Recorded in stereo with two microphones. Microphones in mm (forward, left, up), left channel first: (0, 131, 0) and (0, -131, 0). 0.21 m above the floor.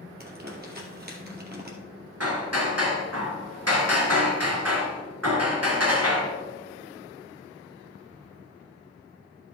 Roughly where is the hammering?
Right.